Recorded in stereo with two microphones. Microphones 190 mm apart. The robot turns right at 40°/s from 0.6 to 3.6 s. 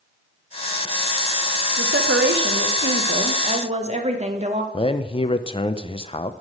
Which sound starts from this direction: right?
A woman speaking, at 1.8 s.